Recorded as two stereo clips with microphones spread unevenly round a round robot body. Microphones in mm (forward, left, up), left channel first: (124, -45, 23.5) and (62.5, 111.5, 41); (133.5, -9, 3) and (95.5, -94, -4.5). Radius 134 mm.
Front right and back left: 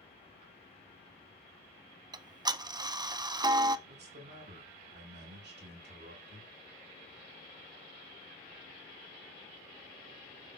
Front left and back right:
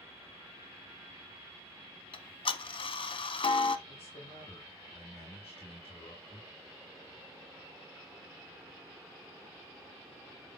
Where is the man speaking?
95° left, 3 m.